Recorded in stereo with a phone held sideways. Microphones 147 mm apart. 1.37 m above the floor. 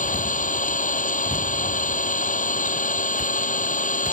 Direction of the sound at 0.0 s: 60° left (ahead or behind).